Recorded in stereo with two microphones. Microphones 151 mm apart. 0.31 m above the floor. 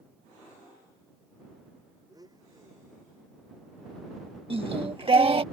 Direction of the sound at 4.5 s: 40° right (ahead or behind).